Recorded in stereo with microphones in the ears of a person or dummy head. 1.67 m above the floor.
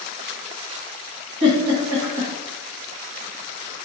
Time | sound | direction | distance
1.4 | a giggle | 60° right (ahead or behind) | 1.7 m